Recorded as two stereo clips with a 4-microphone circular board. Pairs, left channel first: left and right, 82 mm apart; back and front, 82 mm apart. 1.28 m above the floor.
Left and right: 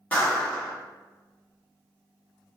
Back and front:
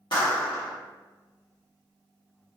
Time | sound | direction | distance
0.1 | a clap | 160° left | 2.0 m